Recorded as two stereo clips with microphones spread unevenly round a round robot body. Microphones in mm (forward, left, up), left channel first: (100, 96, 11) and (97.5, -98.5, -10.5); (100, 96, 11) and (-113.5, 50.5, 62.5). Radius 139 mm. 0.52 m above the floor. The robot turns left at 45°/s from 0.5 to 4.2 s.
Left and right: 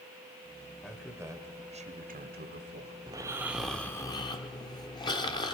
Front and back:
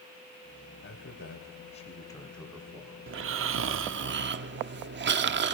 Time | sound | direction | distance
0.8 | a man speaking | straight ahead | 2.5 m
3.1 | snoring | 150° right | 1.0 m